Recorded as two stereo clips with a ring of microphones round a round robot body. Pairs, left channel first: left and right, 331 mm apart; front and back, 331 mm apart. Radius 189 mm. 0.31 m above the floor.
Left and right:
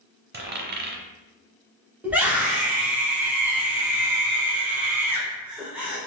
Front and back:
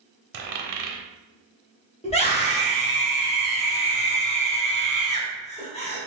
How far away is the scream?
About 1.1 m.